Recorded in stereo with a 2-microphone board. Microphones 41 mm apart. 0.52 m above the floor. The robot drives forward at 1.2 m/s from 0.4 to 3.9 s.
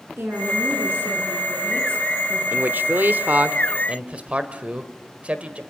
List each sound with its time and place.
0.2 s a woman speaking: 65° right (ahead or behind), 7 m; by 2.4 s 80° right, 6.5 m
2.5 s a man speaking: 50° right (ahead or behind), 1.2 m; by 5.6 s 35° right (ahead or behind), 1.7 m